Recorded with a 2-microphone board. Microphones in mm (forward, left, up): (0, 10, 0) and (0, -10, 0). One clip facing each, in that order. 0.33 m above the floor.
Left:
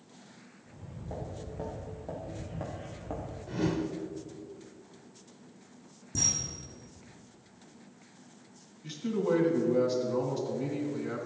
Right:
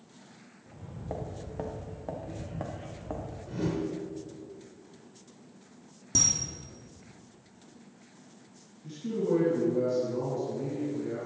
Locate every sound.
0.7 s footsteps: 45° right (ahead or behind), 2.5 m; by 3.4 s 5° right (ahead or behind), 1.8 m
3.5 s a whoosh: 20° left (ahead or behind), 0.8 m
6.2 s a camera shutter: 90° right, 3.5 m
8.8 s a man speaking: 55° left (ahead or behind), 3 m